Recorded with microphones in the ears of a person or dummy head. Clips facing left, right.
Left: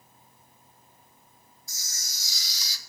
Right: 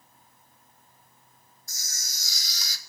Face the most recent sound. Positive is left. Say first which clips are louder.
# right 2 dB
turn(degrees=-45)  # may be behind; listen again after turning